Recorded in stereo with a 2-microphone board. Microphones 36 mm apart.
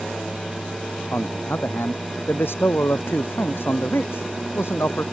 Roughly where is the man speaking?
Left.